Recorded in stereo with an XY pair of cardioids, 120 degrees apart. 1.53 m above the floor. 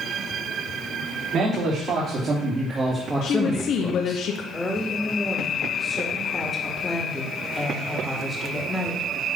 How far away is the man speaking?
About 4 m.